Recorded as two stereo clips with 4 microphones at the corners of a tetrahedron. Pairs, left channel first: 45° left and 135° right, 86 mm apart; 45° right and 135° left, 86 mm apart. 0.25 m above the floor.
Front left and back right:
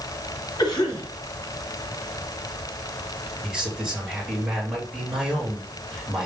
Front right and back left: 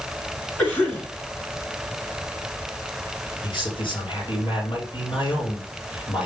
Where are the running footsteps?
I don't hear running footsteps.